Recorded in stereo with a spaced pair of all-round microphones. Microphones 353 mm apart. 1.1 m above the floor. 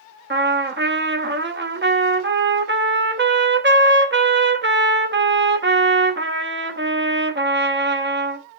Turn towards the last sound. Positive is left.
turn(degrees=-35)  # may be behind; listen again after turning